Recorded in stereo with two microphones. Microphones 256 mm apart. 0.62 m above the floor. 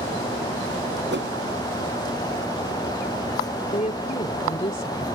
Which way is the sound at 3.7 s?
30° left (ahead or behind).